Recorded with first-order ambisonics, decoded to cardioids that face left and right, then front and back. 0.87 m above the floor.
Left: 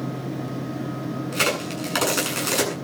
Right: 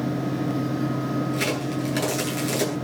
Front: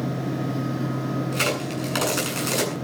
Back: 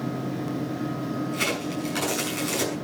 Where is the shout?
No shout in this recording.